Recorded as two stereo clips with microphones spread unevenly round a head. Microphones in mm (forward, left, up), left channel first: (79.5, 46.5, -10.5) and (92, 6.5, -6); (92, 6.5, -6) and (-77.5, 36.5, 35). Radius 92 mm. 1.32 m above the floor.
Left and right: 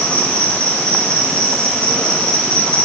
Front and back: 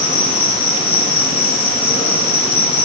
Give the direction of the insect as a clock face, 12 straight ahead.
11 o'clock.